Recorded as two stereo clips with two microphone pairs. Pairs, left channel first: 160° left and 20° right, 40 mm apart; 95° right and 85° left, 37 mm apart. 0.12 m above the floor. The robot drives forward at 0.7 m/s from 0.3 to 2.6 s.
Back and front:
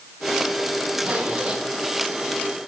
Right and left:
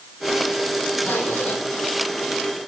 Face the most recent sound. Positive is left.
turn(degrees=-115)